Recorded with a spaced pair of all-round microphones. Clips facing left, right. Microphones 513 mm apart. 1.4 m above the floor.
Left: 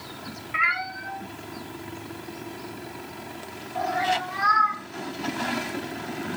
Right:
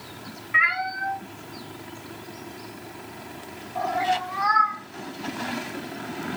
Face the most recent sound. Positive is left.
turn(degrees=40)  # may be behind; listen again after turning